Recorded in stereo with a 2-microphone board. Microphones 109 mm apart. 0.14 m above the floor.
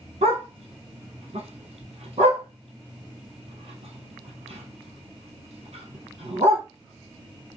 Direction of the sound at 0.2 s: 70° right (ahead or behind).